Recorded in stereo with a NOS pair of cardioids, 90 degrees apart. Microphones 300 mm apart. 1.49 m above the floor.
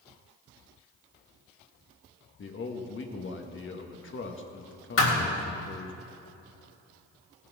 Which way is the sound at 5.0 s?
50° left.